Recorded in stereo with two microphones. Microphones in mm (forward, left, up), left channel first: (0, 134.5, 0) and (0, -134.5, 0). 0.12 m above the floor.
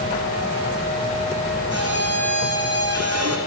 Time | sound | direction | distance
1.7 | a violin | 65° right (ahead or behind) | 2.5 m